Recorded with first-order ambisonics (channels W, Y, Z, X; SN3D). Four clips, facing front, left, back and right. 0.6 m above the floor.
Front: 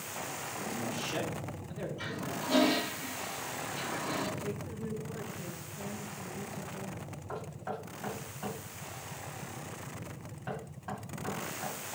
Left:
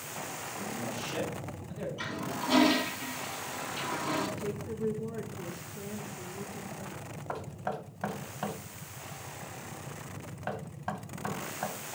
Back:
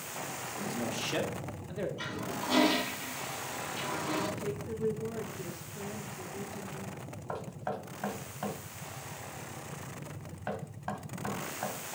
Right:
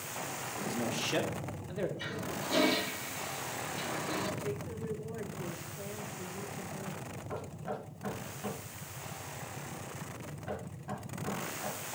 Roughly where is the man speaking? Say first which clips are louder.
Right 3 dB, back 2 dB; behind right.